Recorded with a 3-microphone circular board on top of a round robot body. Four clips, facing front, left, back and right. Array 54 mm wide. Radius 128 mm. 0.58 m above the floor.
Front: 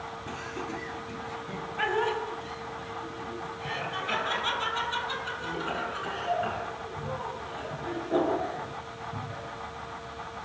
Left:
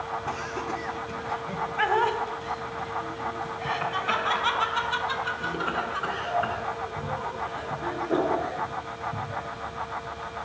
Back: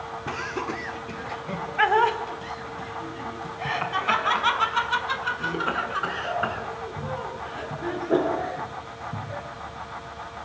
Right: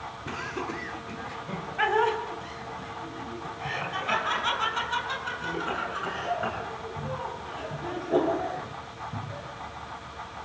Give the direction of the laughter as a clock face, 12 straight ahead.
6 o'clock.